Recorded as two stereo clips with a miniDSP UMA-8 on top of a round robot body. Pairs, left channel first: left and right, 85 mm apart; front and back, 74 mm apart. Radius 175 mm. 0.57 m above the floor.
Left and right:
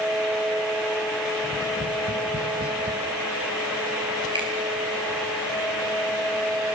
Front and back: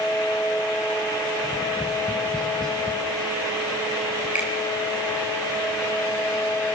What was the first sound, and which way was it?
Tapping, 80° right.